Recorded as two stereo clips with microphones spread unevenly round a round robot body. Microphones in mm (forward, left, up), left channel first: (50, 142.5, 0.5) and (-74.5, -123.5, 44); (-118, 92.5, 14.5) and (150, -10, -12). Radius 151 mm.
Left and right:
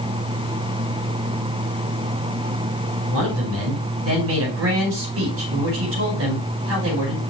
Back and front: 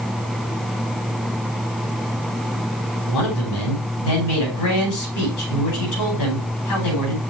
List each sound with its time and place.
3.1 s a man speaking: 165° right, 4.5 m